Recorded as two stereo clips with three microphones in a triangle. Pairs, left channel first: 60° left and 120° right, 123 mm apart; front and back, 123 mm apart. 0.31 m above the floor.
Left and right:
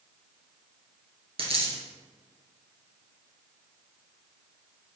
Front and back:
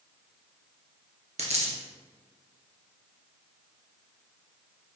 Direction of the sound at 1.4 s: 155° right.